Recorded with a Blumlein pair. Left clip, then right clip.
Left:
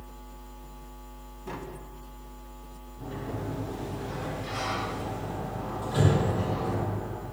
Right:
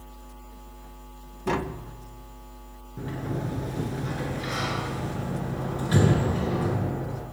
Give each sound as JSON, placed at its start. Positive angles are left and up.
{"t": 1.5, "sound": "tapping", "azimuth_deg": -30, "distance_m": 1.0}
{"t": 3.0, "sound": "a sliding door", "azimuth_deg": -55, "distance_m": 8.0}